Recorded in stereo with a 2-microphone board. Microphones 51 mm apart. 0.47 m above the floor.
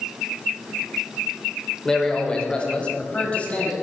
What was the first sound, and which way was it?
A man speaking, 10° left (ahead or behind).